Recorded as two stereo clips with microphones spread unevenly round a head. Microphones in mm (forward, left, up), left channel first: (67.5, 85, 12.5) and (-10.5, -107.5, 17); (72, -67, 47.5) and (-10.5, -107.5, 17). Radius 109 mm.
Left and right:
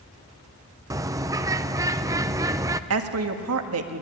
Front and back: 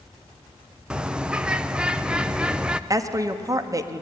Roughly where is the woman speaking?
Right.